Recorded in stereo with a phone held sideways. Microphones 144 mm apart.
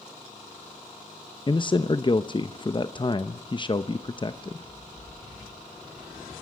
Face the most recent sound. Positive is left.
turn(degrees=35)  # may be behind; listen again after turning